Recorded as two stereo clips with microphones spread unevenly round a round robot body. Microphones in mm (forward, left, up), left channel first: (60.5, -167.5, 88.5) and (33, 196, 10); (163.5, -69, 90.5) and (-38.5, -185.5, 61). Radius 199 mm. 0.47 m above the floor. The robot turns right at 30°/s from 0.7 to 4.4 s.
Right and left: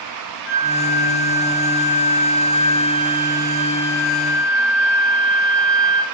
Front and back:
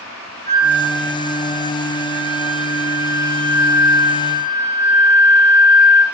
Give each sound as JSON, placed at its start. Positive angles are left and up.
{"t": 0.5, "sound": "a flute", "azimuth_deg": -55, "distance_m": 0.8}